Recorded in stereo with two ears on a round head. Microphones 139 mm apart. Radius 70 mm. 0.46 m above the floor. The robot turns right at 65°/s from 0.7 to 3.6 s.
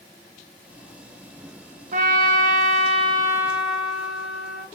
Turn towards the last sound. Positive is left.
turn(degrees=-5)